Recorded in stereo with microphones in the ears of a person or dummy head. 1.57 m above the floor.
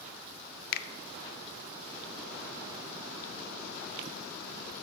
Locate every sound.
0.7 s a finger snap: 60° left (ahead or behind), 0.5 m